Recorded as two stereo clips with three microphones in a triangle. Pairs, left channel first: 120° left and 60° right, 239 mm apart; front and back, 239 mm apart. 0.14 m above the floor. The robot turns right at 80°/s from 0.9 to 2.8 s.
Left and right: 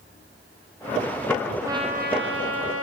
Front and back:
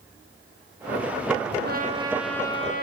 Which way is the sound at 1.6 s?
140° right.